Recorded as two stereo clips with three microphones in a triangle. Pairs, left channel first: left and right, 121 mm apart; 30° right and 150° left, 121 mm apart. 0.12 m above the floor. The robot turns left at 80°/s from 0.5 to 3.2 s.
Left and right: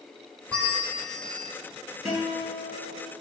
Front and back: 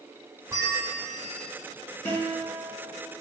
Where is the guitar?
5° left, 1.7 m; by 3.1 s 80° right, 1.7 m.